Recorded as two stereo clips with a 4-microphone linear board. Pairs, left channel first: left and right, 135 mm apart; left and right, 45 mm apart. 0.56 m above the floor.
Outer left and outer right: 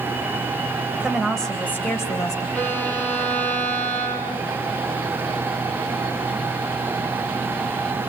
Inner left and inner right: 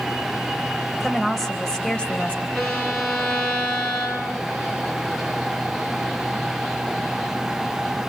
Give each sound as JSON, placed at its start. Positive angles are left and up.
{"t": 1.0, "sound": "a woman speaking", "side_deg": -5, "distance_m": 3.5}
{"t": 2.5, "sound": "a violin", "side_deg": 10, "distance_m": 6.5}